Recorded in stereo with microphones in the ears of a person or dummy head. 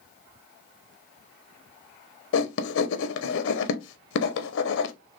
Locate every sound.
2.3 s writing: 70° left (ahead or behind), 0.8 m